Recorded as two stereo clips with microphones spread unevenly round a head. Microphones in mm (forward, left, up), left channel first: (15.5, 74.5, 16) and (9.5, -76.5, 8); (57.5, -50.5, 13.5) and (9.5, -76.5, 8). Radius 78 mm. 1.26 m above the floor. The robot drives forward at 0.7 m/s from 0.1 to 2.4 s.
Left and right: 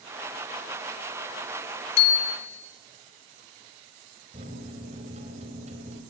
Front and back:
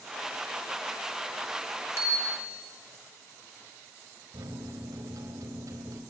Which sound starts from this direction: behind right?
A microwave, at 4.3 s.